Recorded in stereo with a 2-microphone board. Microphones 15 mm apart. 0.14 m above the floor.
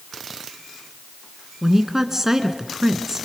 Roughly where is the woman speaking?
Right.